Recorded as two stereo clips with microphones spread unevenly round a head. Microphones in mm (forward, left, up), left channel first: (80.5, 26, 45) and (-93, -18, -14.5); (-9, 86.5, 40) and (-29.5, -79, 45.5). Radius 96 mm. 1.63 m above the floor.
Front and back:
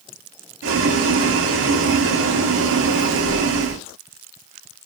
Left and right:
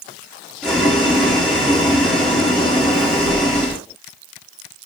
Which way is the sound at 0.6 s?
170° left.